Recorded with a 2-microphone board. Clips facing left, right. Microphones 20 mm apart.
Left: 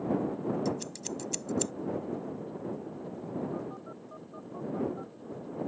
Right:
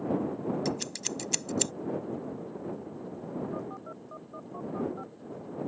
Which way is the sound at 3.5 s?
15° right (ahead or behind).